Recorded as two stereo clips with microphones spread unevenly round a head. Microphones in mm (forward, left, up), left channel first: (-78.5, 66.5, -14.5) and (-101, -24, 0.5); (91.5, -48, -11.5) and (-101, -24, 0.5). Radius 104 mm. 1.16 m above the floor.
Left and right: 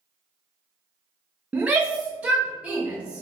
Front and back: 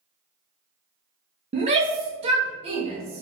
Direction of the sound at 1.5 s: 175° left.